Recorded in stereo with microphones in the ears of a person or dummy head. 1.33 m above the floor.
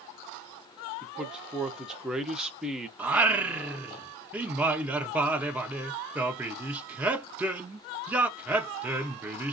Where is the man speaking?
5° right (ahead or behind), 0.6 m.